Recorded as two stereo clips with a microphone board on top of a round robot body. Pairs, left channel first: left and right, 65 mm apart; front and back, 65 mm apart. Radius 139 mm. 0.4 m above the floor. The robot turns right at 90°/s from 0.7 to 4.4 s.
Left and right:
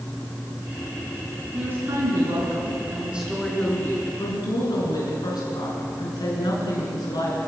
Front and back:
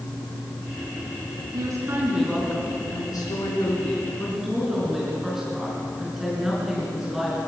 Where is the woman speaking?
160° right, 5.5 m; by 7.4 s 95° left, 5.5 m.